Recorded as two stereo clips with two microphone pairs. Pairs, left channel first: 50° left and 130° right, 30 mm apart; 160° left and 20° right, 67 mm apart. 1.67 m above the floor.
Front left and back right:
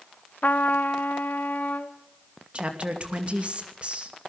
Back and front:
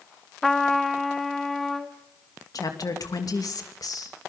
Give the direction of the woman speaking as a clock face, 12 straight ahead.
6 o'clock.